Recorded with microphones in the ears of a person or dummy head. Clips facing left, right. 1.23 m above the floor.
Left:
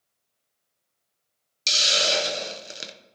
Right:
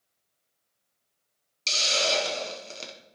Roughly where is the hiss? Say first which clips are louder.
Left 1 dB; centre.